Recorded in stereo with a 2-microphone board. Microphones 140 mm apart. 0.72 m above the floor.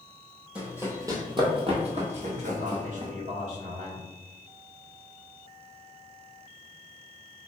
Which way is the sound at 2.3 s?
65° right (ahead or behind).